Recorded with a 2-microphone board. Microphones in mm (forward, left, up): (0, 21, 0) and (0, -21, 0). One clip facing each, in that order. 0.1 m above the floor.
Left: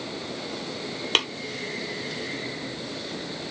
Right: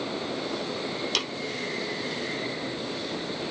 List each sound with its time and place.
1.1 s tapping: 45° left (ahead or behind), 1.3 m